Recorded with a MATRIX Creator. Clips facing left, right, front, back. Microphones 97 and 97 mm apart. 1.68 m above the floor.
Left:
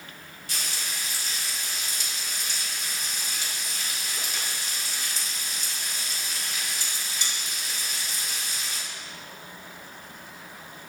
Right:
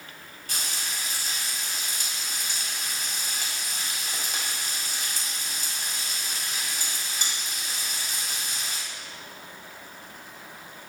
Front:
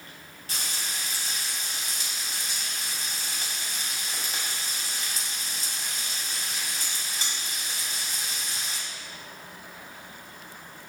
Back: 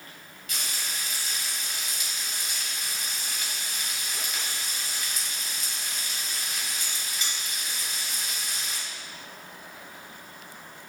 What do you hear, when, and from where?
0.5 s frying: 50° right, 3.5 m